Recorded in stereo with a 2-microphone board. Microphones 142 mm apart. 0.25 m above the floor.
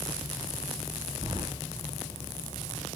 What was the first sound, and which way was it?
Keys jangling, 25° right (ahead or behind).